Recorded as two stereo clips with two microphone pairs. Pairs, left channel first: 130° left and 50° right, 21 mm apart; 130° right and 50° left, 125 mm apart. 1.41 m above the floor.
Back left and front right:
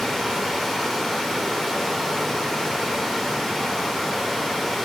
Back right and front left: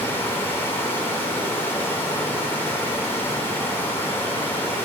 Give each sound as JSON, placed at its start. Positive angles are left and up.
{"t": 0.0, "sound": "running water", "azimuth_deg": -160, "distance_m": 1.1}